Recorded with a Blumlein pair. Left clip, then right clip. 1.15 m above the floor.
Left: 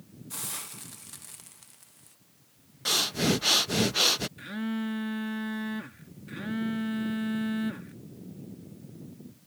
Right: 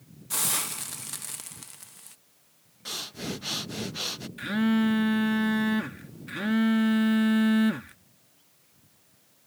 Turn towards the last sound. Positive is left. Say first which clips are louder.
# right 8 dB
turn(degrees=-20)